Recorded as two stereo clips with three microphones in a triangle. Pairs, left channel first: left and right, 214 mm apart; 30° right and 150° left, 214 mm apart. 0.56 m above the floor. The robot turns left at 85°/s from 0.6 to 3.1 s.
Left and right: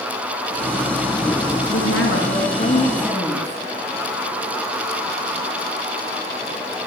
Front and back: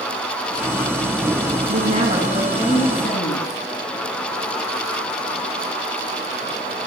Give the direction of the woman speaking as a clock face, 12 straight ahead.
7 o'clock.